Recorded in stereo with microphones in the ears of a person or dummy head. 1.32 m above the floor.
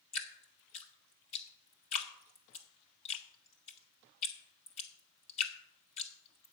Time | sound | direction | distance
0.1 | dripping | 35° left (ahead or behind) | 1.3 m